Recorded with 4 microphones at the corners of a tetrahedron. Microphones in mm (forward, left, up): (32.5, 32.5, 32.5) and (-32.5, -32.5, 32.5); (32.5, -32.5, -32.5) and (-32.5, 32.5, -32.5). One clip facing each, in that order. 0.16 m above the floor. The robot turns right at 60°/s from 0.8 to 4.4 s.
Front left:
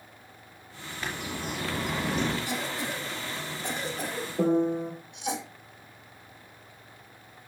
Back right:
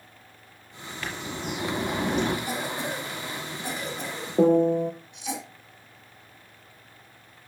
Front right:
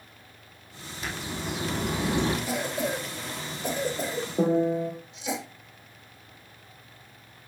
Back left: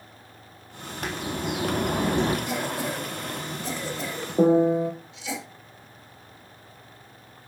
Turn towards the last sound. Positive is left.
turn(degrees=-155)